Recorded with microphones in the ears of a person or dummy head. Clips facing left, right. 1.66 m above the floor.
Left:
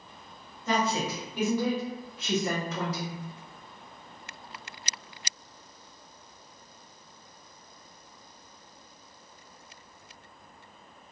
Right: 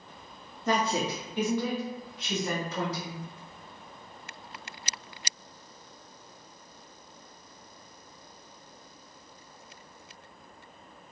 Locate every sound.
0.7 s a woman speaking: 40° right (ahead or behind), 0.7 m; by 3.2 s 60° left (ahead or behind), 1.5 m